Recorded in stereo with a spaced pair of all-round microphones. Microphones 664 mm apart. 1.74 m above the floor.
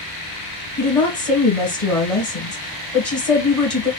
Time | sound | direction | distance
0.8 | a woman speaking | 55° left (ahead or behind) | 1.7 m